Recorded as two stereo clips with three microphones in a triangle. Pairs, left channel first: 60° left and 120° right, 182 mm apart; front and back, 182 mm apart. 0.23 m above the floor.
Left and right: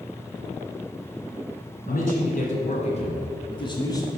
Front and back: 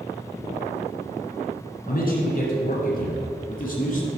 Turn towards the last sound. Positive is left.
turn(degrees=-5)